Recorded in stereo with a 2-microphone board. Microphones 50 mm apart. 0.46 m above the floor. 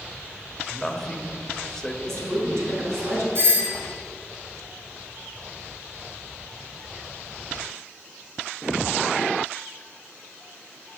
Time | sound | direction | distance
0.7 | a man speaking | 10° left (ahead or behind) | 1.3 m
2.0 | a woman speaking | 70° right (ahead or behind) | 5 m
3.4 | a doorbell | 55° right (ahead or behind) | 2.5 m